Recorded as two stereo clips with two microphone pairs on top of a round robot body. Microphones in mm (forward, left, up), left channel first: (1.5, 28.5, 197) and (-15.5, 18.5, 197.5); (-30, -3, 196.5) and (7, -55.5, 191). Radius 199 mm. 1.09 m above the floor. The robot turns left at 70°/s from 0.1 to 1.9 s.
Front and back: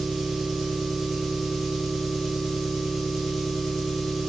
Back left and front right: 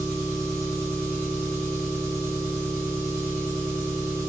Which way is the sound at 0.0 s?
140° right.